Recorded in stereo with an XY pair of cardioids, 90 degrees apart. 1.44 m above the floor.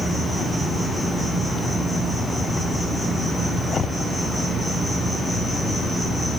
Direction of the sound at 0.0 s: 15° left.